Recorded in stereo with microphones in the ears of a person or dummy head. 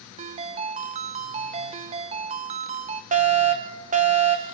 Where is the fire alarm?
40° right (ahead or behind), 1.8 m.